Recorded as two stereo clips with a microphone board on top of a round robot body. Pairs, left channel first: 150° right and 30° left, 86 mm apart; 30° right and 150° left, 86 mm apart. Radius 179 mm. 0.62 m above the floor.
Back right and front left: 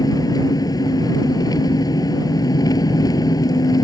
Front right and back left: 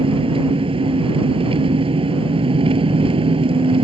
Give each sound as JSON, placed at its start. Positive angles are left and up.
{"t": 0.0, "sound": "an engine running", "azimuth_deg": 165}